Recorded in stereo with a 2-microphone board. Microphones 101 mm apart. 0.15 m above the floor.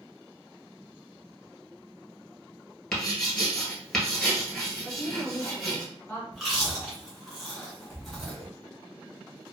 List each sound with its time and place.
2.9 s writing: 5° left (ahead or behind), 1.2 m
4.8 s a woman speaking: 15° left (ahead or behind), 1.4 m
6.3 s chewing: centre (ahead or behind), 1.4 m